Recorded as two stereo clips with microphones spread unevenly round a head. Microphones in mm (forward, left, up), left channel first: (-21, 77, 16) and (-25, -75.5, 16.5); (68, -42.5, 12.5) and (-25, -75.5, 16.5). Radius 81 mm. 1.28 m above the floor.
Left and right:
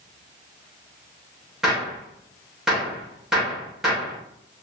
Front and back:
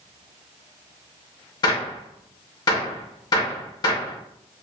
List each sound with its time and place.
1.6 s a gunshot: 5° right, 1.2 m